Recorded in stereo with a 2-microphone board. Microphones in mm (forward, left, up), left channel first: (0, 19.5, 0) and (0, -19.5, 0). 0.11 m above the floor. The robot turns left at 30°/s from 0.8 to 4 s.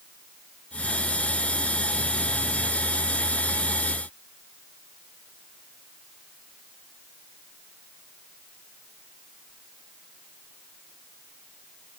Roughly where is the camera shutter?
I don't hear a camera shutter.